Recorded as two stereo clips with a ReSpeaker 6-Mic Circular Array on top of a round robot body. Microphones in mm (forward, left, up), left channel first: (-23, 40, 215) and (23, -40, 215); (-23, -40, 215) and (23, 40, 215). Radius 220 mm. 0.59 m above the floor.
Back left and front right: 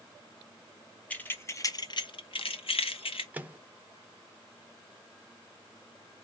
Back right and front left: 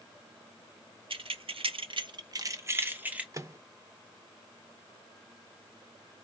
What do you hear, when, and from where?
1.1 s keys jangling: 45° left, 1.0 m; by 3.2 s 135° left, 1.2 m
3.3 s a microwave: 10° left, 0.8 m